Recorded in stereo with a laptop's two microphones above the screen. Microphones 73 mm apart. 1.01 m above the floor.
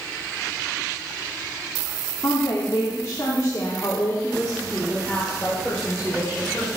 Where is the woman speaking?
65° left (ahead or behind), 2 m; by 6.8 s centre (ahead or behind), 4 m.